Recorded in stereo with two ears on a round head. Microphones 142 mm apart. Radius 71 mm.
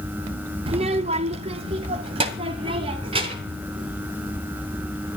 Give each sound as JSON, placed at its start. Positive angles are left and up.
{"t": 0.7, "sound": "a child speaking", "side_deg": -35, "distance_m": 0.5}